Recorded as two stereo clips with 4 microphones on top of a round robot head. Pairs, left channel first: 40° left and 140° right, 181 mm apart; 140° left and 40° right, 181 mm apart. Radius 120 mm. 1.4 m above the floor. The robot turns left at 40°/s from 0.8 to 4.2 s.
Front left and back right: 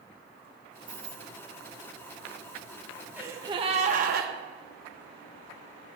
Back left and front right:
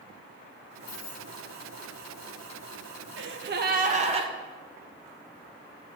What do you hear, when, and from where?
0.9 s keys jangling: 155° left, 4.5 m; by 1.3 s 135° left, 4.5 m
3.2 s a gasp: 60° right, 1.4 m; by 4.3 s 100° right, 1.4 m